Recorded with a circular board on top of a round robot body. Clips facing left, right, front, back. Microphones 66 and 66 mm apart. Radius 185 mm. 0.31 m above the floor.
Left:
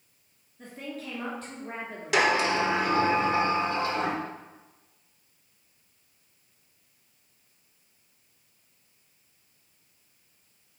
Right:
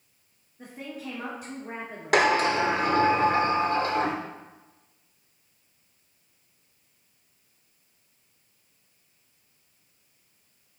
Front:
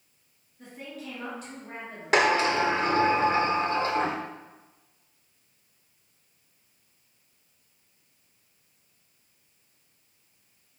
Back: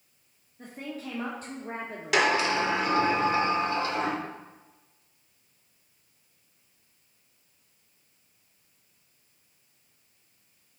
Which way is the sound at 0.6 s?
160° right.